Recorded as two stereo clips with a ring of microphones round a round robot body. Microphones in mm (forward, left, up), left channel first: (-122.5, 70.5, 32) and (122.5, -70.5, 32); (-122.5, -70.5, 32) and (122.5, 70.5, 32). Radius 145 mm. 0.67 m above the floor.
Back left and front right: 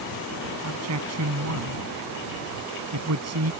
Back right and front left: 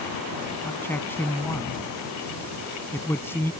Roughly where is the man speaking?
Ahead right.